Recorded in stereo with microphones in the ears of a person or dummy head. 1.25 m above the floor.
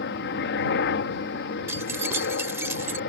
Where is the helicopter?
60° left (ahead or behind).